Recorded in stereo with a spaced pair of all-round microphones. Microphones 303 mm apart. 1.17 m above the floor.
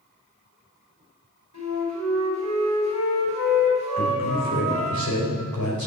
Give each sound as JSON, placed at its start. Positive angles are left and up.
{"t": 1.5, "sound": "a flute", "side_deg": 75, "distance_m": 5.0}
{"t": 4.0, "sound": "a man speaking", "side_deg": 70, "distance_m": 4.5}